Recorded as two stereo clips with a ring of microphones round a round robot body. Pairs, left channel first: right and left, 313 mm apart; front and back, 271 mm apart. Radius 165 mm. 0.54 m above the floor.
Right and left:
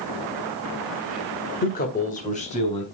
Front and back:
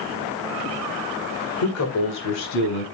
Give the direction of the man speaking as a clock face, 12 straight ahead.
1 o'clock.